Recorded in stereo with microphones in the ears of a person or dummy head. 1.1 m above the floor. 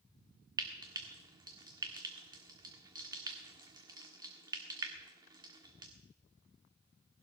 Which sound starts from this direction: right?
Frying, at 0.6 s.